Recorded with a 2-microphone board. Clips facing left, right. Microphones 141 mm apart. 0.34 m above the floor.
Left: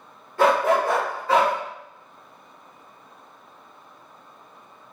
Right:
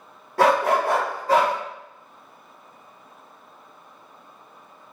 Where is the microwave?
I don't hear a microwave.